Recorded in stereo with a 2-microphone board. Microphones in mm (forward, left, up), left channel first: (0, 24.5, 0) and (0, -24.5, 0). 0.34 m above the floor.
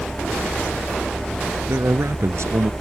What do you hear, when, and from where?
1.7 s a man speaking: 65° right (ahead or behind); by 2.7 s 70° right (ahead or behind)